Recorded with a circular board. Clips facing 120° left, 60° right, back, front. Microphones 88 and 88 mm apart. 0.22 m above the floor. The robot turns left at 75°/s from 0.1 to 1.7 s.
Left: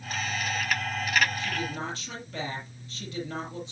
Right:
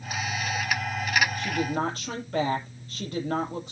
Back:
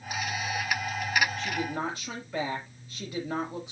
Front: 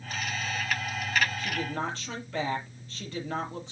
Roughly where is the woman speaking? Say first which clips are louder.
Right 5 dB, back 1 dB; right.